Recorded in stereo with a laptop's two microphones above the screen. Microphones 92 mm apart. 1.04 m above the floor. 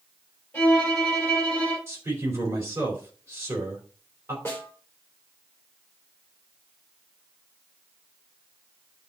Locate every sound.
0.5 s a violin: 15° left (ahead or behind), 4 m
1.9 s a man speaking: 25° right (ahead or behind), 3.5 m
4.5 s a snare drum: 20° left (ahead or behind), 3 m